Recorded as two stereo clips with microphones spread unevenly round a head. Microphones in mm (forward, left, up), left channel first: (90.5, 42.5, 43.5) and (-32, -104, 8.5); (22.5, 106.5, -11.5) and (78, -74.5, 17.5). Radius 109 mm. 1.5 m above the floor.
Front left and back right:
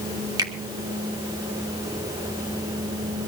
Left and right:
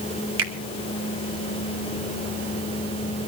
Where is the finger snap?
60° right, 2.5 m.